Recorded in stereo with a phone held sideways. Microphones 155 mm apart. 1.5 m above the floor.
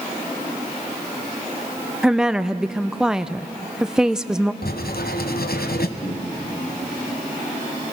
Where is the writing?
80° left, 1.0 m.